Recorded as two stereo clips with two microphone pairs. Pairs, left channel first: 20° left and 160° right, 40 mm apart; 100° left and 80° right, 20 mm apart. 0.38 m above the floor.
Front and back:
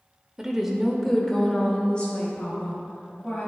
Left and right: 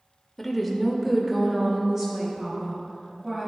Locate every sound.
0.4 s a woman speaking: 160° left, 0.9 m; by 3.5 s 25° right, 1.9 m